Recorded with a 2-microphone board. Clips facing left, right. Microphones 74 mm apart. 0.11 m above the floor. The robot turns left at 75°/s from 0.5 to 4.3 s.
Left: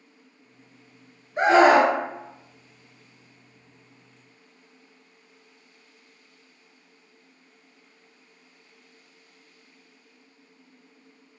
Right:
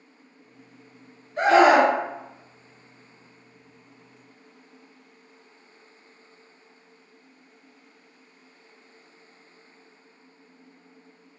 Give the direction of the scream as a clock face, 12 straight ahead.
7 o'clock.